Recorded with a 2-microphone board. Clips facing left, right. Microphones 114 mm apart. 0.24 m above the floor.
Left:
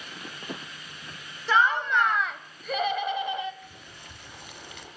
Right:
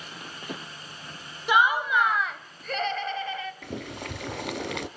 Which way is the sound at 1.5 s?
15° right (ahead or behind).